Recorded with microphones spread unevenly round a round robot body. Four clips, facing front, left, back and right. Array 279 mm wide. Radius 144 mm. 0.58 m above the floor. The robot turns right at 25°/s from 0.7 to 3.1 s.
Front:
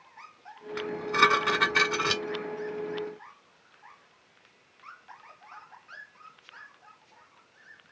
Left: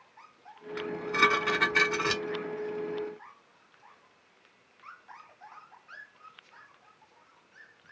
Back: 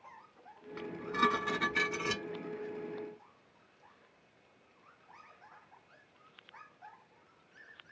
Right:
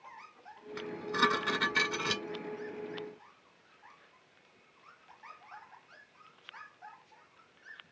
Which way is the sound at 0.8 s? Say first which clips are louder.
Left 4 dB, front 7 dB; 5° right.